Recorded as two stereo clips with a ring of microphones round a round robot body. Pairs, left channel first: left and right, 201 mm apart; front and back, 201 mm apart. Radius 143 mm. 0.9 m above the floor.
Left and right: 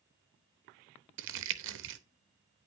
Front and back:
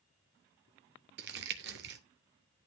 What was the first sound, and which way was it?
Crumpling, 130° right.